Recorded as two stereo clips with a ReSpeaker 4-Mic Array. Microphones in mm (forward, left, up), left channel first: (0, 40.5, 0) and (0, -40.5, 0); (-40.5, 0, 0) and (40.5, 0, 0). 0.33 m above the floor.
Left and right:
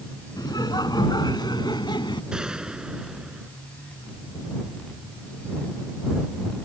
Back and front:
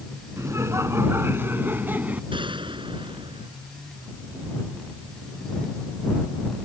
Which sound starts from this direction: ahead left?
Laughter, at 0.4 s.